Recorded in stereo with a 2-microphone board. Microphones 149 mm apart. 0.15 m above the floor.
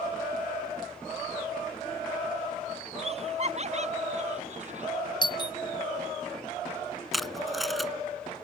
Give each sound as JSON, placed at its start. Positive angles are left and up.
{"t": 3.0, "sound": "laughter", "side_deg": -45}
{"t": 5.2, "sound": "a doorbell", "side_deg": 30}
{"t": 7.1, "sound": "tape being pulled", "side_deg": 0}